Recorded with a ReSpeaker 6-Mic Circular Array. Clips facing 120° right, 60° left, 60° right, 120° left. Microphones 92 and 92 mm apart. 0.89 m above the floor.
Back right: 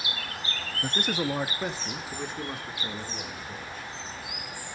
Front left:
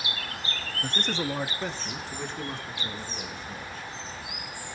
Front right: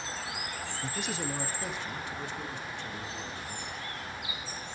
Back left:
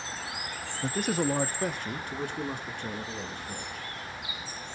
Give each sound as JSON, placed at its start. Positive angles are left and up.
{"t": 0.8, "sound": "a man speaking", "azimuth_deg": 165, "distance_m": 0.7}